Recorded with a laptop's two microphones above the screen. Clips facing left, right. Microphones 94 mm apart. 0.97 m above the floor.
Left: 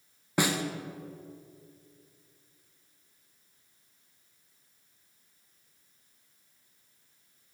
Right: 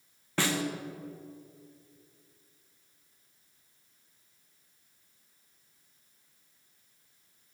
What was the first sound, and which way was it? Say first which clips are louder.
A snare drum: left 2 dB; 15° left (ahead or behind).